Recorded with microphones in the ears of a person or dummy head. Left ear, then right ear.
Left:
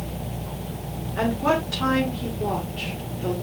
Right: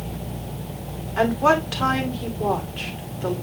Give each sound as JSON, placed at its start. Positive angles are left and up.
{"t": 1.2, "sound": "a woman speaking", "side_deg": -35, "distance_m": 1.9}